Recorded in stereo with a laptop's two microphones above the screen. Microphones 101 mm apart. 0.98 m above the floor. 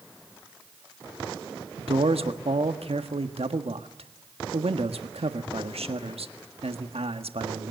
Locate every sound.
1.8 s a man speaking: 80° right, 1.5 m